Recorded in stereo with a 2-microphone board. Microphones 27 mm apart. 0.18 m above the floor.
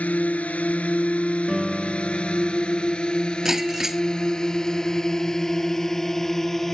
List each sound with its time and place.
0.0 s a drone: 60° left (ahead or behind); by 6.7 s 15° left (ahead or behind)
1.5 s a piano: 5° right (ahead or behind)
3.5 s breaking glass: 20° right (ahead or behind)